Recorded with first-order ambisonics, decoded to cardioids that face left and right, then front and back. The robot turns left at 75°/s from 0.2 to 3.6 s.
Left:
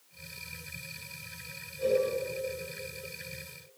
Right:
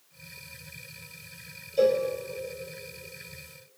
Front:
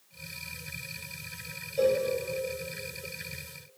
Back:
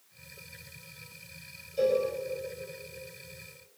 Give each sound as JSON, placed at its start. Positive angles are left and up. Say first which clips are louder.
{"t": 1.8, "sound": "a cowbell", "louder": "right 5 dB, front 1 dB", "azimuth_deg": -80, "distance_m": 5.0}